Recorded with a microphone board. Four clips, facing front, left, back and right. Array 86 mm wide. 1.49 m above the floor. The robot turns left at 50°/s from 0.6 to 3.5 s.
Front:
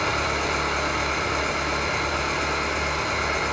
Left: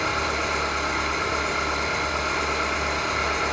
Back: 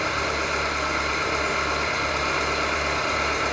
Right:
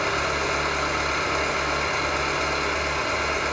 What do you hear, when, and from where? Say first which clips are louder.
0.0 s an engine running: right 1 dB, front 1 dB; 65° right, 1.3 m; by 3.5 s 150° left, 1.3 m